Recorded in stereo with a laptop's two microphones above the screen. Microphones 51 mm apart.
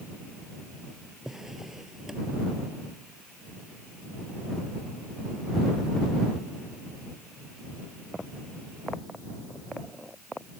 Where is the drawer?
10° right (ahead or behind).